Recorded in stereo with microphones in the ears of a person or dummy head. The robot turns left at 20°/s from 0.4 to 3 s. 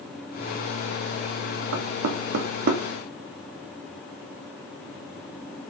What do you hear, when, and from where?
1.7 s knocking: 60° right (ahead or behind), 0.6 m; by 2.8 s 45° right (ahead or behind), 0.6 m